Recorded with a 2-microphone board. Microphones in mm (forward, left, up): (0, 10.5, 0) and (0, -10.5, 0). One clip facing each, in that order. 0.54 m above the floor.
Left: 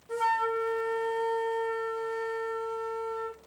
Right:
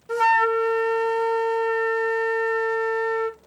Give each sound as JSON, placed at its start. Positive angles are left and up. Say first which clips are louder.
{"t": 0.1, "sound": "a flute", "louder": "right 9 dB", "side_deg": -60, "distance_m": 0.5}